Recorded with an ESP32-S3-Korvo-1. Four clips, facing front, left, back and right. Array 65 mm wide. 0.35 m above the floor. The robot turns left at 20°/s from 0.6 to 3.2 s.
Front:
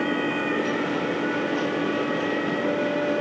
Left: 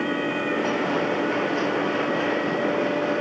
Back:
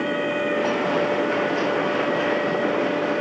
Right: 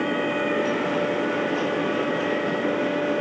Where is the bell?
No bell in this recording.